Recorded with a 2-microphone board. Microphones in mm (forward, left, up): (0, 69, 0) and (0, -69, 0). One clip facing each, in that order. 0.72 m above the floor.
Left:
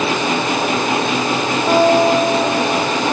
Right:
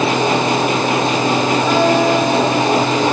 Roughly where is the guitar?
Left.